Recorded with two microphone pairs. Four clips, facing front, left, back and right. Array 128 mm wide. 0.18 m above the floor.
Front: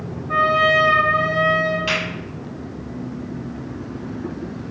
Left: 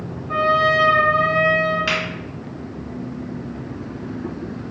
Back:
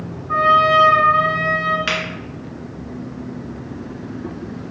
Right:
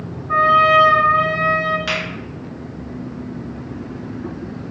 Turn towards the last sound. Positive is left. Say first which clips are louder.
# even, even
turn(degrees=150)